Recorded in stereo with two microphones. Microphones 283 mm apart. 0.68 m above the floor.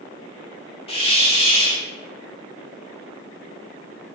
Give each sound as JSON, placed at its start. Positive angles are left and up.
{"t": 0.9, "sound": "a hiss", "side_deg": 20, "distance_m": 1.7}